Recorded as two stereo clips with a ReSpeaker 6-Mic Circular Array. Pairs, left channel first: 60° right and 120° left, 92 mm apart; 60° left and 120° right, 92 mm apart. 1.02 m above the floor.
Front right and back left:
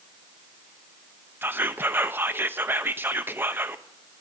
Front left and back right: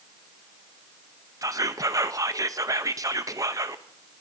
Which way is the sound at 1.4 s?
170° right.